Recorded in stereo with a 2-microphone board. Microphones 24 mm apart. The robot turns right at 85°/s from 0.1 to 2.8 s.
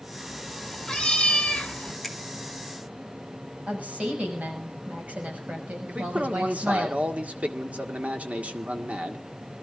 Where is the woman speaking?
75° right (ahead or behind), 6.5 m.